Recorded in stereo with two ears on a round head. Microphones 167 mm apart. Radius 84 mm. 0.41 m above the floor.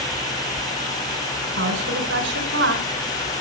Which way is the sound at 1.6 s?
70° right (ahead or behind).